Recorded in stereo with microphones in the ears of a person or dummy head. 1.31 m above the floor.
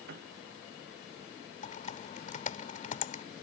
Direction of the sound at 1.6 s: 40° left (ahead or behind).